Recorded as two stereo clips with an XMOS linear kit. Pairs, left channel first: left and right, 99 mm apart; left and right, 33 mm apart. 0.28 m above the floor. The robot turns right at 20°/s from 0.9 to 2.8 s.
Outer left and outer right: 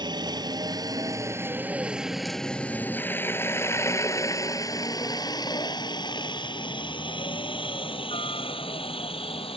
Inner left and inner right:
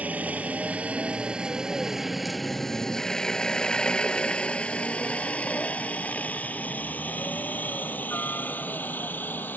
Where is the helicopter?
45° right (ahead or behind); by 9.6 s 70° left (ahead or behind).